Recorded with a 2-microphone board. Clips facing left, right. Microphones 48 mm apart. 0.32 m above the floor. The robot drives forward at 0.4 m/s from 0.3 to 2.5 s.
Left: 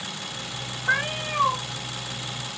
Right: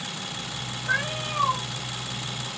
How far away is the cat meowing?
About 0.9 m.